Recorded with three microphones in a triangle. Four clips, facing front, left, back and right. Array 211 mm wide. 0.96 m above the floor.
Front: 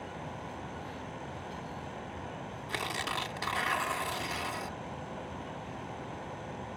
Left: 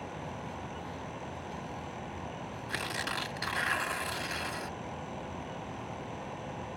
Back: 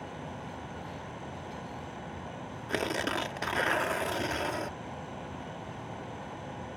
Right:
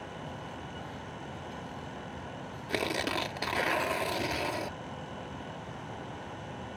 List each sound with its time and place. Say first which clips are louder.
2.7 s tearing paper: right 6 dB, back 5 dB; 135° right